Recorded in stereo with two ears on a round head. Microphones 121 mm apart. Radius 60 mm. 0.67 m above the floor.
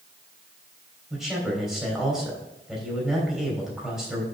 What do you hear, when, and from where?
1.1 s a man speaking: 5° right (ahead or behind), 3 m